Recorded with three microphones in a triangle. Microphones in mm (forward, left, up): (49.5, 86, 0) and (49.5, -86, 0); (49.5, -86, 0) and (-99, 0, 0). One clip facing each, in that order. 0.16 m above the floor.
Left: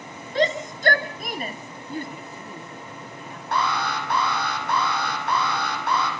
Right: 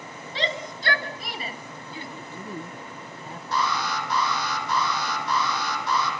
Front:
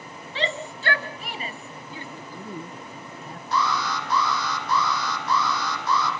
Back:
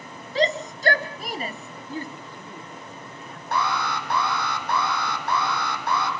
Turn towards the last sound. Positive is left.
turn(degrees=120)